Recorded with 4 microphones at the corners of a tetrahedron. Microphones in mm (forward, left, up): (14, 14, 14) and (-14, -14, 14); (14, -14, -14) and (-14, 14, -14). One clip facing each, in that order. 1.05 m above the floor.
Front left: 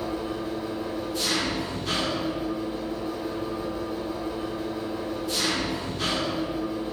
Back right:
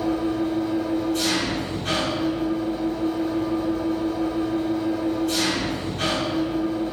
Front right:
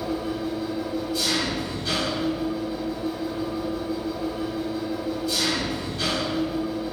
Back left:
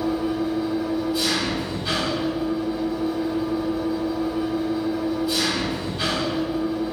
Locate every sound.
0.0 s an engine running: 155° right, 1.9 m